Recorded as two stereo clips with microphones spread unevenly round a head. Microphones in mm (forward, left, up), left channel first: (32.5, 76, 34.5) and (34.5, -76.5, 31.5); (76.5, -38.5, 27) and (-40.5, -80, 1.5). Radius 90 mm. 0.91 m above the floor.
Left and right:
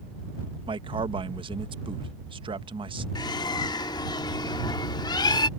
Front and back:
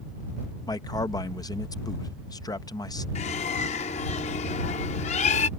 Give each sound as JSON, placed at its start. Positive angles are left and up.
{"t": 0.7, "sound": "a man speaking", "azimuth_deg": -45}
{"t": 3.1, "sound": "a bird", "azimuth_deg": 30}